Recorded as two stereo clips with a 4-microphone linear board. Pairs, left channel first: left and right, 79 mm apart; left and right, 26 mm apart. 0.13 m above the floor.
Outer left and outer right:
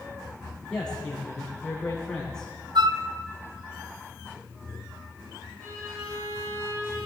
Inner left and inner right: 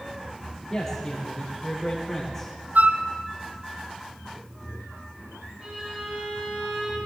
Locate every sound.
0.7 s a man speaking: 10° left (ahead or behind), 6 m
2.8 s a flute: 75° right (ahead or behind), 0.7 m
5.6 s a violin: 45° right (ahead or behind), 7 m